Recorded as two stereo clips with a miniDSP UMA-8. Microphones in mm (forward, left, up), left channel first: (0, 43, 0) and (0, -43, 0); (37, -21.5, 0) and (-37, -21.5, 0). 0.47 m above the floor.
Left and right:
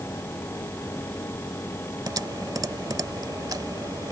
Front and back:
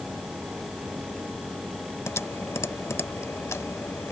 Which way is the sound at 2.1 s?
50° right.